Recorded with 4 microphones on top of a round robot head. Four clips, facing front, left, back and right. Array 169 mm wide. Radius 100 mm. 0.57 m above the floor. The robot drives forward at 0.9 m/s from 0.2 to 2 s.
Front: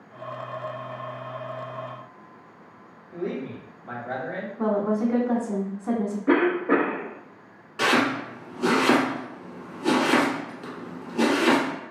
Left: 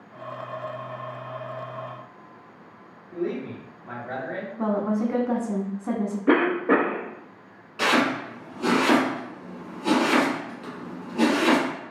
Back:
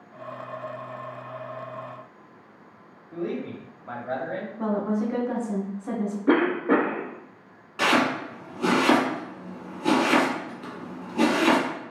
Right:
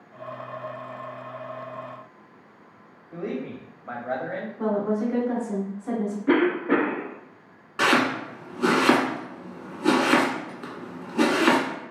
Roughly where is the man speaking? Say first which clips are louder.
Left 2 dB, even; behind right.